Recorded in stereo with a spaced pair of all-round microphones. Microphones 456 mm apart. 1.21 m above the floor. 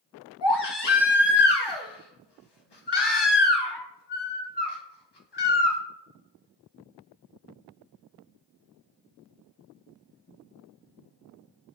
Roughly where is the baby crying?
Left.